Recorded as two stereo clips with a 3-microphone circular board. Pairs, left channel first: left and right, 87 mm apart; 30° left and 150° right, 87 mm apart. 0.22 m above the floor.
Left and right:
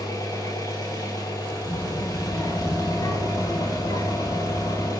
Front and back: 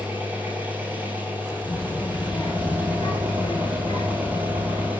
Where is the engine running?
135° left, 3.5 m.